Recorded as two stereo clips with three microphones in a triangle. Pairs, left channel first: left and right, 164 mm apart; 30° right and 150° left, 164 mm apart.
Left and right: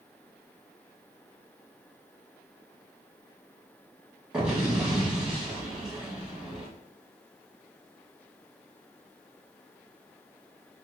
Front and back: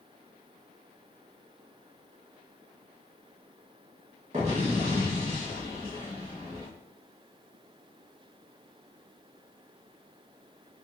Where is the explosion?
175° right, 1.8 m.